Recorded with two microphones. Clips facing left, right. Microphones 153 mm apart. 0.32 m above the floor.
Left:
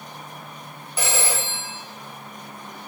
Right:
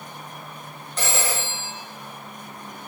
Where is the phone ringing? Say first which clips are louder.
Even; 10° left (ahead or behind), 0.6 m.